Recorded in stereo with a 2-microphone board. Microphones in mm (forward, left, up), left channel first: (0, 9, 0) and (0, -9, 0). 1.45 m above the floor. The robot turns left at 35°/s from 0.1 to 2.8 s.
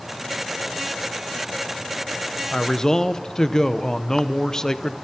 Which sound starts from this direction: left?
A man speaking, at 2.5 s.